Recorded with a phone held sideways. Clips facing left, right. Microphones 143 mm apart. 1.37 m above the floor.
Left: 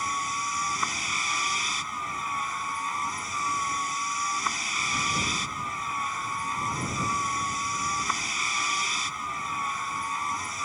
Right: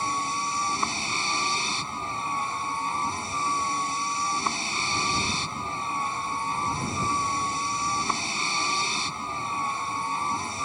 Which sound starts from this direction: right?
A vehicle, at 0.0 s.